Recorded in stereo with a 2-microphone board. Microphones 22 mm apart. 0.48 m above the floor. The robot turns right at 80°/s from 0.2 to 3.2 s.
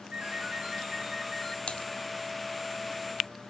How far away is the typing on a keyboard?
About 1.2 m.